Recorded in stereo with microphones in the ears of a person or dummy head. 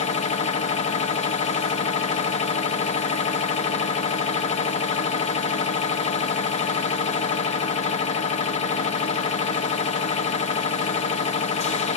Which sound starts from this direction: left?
A machine running, at 0.0 s.